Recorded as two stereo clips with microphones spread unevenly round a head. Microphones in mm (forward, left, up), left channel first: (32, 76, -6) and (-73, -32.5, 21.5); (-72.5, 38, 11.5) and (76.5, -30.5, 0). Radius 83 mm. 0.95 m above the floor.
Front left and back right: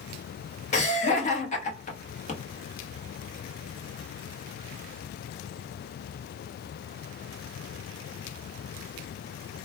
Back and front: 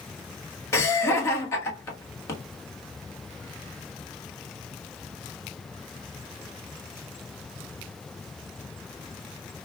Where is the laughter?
80° left, 1.2 m.